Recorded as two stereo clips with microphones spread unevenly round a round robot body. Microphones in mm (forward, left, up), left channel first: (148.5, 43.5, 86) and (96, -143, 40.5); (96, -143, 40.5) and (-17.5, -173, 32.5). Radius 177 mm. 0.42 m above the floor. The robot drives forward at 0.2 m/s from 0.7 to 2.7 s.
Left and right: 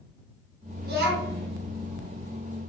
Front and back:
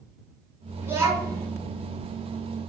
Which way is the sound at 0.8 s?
95° right.